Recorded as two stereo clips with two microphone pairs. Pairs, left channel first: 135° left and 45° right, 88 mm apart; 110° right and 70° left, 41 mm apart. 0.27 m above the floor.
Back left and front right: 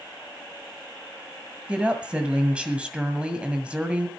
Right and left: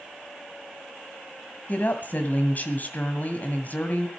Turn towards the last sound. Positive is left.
turn(degrees=-115)